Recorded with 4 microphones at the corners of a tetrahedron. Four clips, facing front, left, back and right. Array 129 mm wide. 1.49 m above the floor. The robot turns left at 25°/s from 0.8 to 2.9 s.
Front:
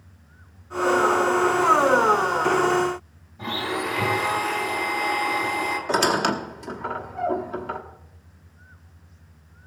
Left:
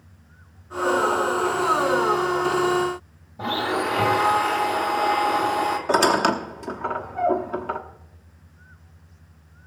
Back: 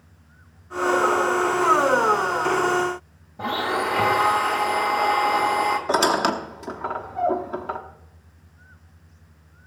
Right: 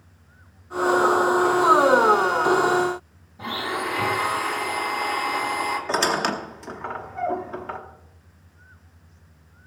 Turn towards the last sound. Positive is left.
turn(degrees=150)